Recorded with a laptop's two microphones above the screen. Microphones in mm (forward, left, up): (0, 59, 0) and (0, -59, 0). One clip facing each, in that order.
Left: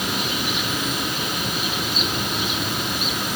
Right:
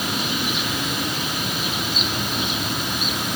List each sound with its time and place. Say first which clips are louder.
0.0 s an insect: even; 15° right (ahead or behind), 2.5 m